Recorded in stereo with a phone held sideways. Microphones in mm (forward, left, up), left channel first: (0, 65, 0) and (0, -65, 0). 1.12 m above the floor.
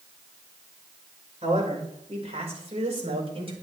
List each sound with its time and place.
1.4 s a man speaking: 50° right (ahead or behind), 5.5 m; by 3.5 s 45° right (ahead or behind), 4.5 m